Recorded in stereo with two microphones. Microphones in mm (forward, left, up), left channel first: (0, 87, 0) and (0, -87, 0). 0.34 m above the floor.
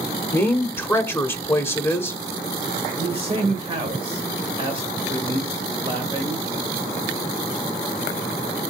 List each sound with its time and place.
0.3 s a woman speaking: 15° left (ahead or behind), 0.9 m
3.0 s a man speaking: 30° right (ahead or behind), 1.3 m